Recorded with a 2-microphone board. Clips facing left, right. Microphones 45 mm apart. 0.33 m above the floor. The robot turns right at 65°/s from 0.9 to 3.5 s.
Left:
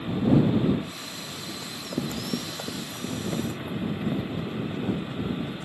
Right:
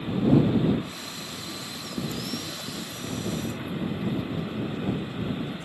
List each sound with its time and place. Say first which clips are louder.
1.6 s running footsteps: left 3 dB; 50° left (ahead or behind)